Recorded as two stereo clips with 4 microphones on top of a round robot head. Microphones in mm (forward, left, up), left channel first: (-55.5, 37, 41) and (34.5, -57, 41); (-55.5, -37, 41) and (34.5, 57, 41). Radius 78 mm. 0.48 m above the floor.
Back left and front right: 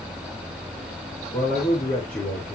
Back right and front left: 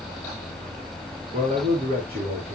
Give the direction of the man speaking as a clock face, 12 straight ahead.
9 o'clock.